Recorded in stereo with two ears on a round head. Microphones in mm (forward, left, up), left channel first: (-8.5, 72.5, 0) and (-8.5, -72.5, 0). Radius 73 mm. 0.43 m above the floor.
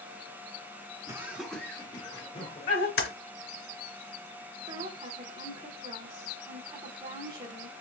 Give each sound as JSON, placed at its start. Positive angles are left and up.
{"t": 1.1, "sound": "laughter", "side_deg": -20, "distance_m": 1.4}
{"t": 3.0, "sound": "typing on a keyboard", "side_deg": 65, "distance_m": 1.5}
{"t": 4.7, "sound": "a woman speaking", "side_deg": -25, "distance_m": 1.1}